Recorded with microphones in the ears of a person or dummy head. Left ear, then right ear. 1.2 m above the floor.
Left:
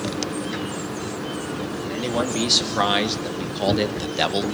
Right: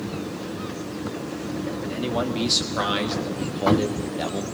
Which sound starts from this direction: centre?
A man speaking, at 1.8 s.